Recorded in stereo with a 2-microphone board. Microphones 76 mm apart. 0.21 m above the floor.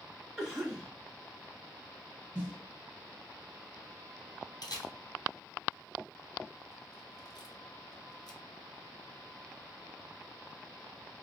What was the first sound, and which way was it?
A cough, 5° right (ahead or behind).